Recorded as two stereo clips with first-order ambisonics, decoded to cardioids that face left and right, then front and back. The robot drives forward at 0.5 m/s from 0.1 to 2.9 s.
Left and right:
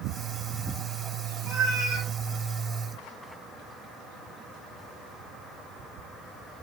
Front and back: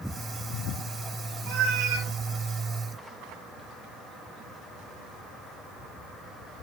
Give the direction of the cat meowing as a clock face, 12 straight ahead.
5 o'clock.